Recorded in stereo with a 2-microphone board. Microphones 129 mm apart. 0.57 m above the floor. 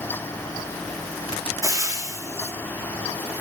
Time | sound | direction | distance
1.6 | frying | 25° right (ahead or behind) | 0.9 m